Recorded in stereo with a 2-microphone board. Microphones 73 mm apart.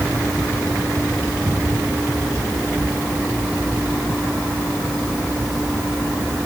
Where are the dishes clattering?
No dishes clattering in this recording.